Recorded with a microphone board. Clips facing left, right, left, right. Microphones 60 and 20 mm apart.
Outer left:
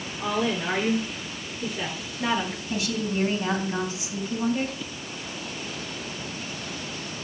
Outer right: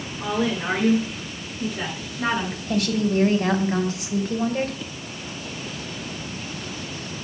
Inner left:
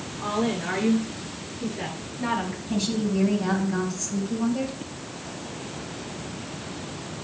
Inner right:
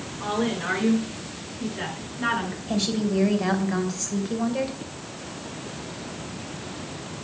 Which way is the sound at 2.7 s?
55° right (ahead or behind).